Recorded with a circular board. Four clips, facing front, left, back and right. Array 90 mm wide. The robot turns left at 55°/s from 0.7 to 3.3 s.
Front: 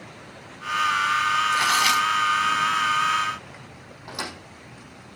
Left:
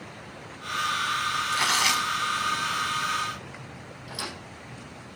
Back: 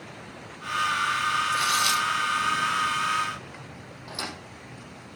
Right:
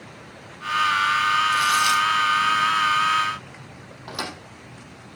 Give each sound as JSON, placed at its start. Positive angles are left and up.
{"t": 1.5, "sound": "tearing paper", "azimuth_deg": 50, "distance_m": 1.1}
{"t": 4.1, "sound": "a thud", "azimuth_deg": -70, "distance_m": 4.5}